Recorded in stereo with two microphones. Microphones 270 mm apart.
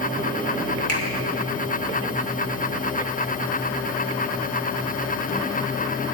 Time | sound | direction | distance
0.9 | a finger snap | 65° right (ahead or behind) | 1.9 m